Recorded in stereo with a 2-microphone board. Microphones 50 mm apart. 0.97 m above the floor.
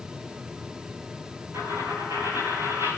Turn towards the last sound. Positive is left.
turn(degrees=-70)  # may be behind; listen again after turning